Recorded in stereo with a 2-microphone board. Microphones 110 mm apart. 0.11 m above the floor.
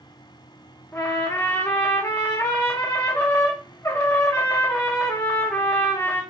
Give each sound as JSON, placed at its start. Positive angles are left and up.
{"t": 0.9, "sound": "a trumpet", "side_deg": 20, "distance_m": 4.0}